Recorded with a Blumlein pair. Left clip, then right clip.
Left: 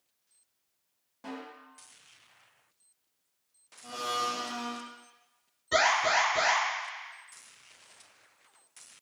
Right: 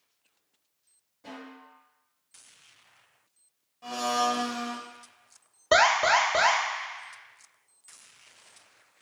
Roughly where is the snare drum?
Ahead left.